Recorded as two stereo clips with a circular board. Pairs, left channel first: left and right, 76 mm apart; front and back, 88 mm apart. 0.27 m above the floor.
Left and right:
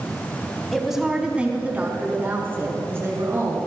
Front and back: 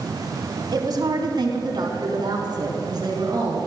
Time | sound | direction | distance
0.7 | a woman speaking | straight behind | 1.9 m